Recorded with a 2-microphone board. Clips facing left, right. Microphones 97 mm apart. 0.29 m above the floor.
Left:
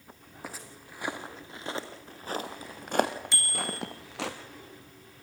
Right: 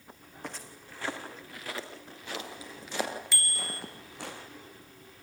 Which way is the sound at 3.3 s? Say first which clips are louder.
Left 4 dB; 20° left (ahead or behind).